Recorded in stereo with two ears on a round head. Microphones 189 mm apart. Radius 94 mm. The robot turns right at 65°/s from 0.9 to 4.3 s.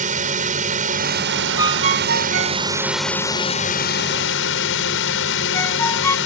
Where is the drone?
135° right; by 6.3 s 85° left.